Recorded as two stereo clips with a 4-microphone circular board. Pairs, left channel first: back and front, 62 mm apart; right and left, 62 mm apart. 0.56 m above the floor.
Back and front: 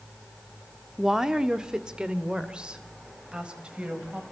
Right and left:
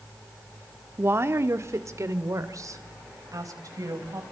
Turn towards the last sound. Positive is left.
turn(degrees=70)